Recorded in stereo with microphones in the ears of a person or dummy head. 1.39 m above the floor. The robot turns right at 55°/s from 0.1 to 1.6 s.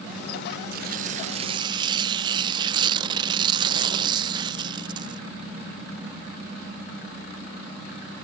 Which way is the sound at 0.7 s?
80° right.